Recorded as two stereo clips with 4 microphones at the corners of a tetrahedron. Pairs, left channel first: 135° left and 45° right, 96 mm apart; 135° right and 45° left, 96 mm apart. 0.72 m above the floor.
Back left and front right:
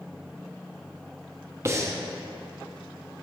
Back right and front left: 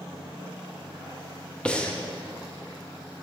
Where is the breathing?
65° right, 0.6 m.